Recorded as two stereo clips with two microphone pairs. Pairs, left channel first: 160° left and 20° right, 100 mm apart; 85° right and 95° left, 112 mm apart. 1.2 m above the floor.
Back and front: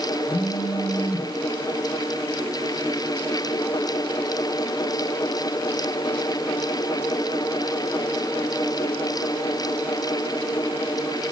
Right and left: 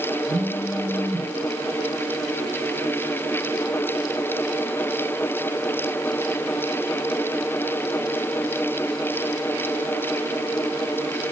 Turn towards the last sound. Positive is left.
turn(degrees=125)